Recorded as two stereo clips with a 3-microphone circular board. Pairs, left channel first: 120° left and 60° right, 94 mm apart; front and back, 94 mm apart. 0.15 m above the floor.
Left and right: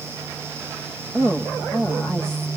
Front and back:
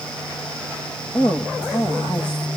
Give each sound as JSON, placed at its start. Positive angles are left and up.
{"t": 1.1, "sound": "a woman speaking", "azimuth_deg": 40, "distance_m": 5.5}